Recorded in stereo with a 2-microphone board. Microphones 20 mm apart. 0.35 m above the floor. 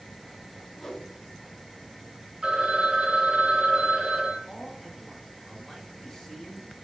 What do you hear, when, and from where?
0.8 s a whoosh: 10° left (ahead or behind), 0.7 m
2.4 s a phone ringing: 40° right (ahead or behind), 0.8 m
4.5 s a man speaking: 20° left (ahead or behind), 0.8 m